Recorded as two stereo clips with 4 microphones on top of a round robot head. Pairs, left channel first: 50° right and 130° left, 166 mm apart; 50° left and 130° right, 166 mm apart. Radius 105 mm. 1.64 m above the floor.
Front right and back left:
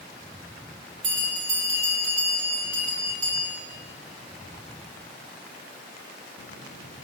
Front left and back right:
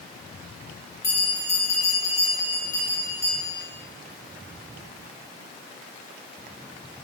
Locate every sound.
1.0 s a bell: 125° left, 1.9 m